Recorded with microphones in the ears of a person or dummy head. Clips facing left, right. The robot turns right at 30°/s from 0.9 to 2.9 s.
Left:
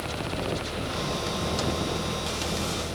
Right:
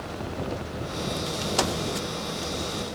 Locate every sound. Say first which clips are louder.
1.6 s a microwave: right 5 dB; 70° right (ahead or behind); by 1.8 s 75° right (ahead or behind)